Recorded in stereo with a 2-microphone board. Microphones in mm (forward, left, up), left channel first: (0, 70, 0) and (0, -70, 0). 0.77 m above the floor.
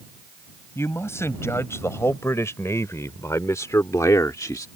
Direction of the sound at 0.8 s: 20° left (ahead or behind).